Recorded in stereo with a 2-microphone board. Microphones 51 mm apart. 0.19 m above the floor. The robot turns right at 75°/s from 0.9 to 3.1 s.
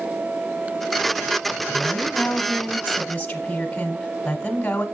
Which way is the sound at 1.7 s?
10° left (ahead or behind).